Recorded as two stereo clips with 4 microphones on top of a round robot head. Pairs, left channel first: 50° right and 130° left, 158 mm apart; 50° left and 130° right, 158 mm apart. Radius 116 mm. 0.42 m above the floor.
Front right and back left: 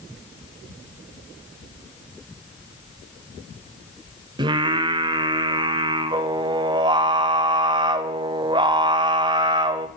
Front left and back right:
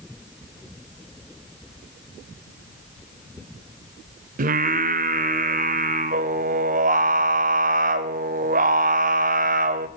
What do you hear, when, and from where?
4.4 s singing: 170° right, 0.6 m